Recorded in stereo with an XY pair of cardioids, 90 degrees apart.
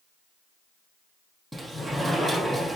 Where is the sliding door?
10° right, 5.5 m.